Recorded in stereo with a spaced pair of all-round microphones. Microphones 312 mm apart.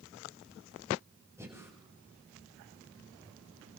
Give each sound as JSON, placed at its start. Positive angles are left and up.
{"t": 1.4, "sound": "breathing", "side_deg": -10, "distance_m": 7.5}